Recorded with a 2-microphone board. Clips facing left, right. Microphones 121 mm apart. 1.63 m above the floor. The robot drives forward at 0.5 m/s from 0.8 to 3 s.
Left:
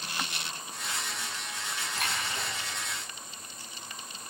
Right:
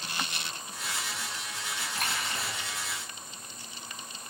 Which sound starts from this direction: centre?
A splash, at 1.9 s.